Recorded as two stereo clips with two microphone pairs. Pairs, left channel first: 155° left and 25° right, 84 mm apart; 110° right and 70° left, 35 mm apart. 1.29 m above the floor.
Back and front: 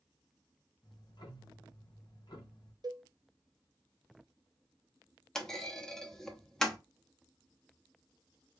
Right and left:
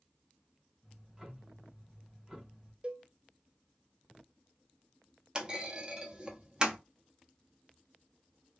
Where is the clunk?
80° left, 0.7 m.